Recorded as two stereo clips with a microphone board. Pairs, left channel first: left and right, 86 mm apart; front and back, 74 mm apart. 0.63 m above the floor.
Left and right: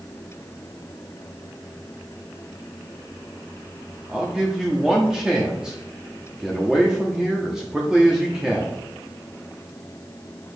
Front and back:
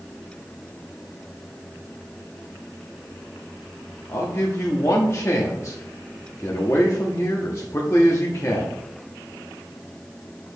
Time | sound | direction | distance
4.1 | a man speaking | 10° right | 1.0 m